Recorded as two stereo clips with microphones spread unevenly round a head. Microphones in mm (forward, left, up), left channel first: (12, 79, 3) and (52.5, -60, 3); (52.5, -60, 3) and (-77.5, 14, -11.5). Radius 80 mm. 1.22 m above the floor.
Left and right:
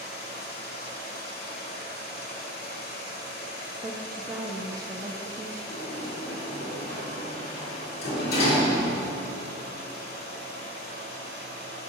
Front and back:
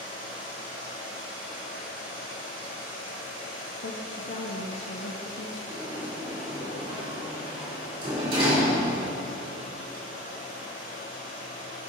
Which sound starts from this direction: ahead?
A woman speaking, at 3.8 s.